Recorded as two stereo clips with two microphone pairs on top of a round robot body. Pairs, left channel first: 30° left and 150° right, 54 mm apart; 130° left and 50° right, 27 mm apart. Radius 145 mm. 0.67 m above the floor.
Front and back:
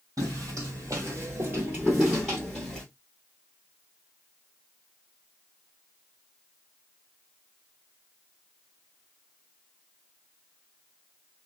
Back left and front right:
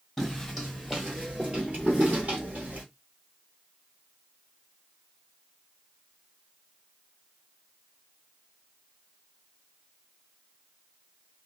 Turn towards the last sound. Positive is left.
turn(degrees=-55)